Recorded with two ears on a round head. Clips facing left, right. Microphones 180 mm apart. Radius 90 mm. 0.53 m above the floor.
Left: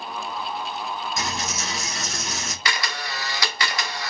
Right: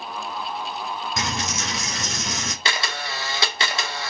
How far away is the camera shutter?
About 0.7 m.